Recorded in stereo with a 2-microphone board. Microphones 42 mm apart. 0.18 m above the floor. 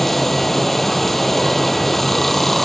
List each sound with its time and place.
0.0 s running water: 5° left (ahead or behind), 0.8 m